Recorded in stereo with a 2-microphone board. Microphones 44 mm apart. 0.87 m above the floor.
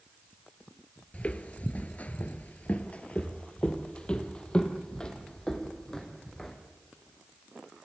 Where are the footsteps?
30° left (ahead or behind), 1.0 m; by 6.5 s 15° left (ahead or behind), 3 m.